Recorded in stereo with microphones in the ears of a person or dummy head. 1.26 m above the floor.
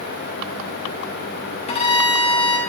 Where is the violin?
30° left (ahead or behind), 1.1 m.